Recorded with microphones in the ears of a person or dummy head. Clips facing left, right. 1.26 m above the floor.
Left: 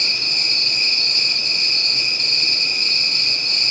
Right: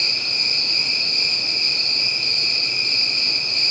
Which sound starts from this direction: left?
An insect, at 0.0 s.